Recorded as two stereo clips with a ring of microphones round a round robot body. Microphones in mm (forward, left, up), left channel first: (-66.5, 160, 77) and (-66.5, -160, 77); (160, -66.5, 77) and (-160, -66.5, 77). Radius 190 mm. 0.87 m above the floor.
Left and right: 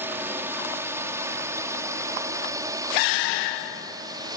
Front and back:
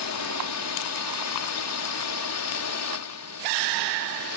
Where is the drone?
10° right; by 4.4 s 15° right.